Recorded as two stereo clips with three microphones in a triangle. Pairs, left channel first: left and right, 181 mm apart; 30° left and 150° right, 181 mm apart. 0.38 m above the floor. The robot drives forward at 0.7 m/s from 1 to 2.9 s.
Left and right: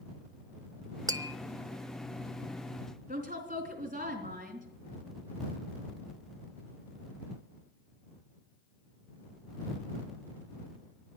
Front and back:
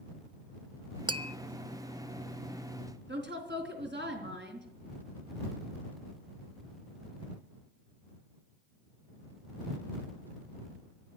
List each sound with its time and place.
1.1 s tapping: 130° right, 0.6 m; by 1.4 s 150° right, 0.7 m
3.1 s a woman speaking: 135° right, 3.5 m